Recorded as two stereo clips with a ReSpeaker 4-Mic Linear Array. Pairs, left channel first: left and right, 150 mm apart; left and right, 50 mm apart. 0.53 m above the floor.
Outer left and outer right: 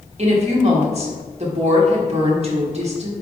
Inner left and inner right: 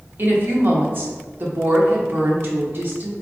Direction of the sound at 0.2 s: 45° right (ahead or behind).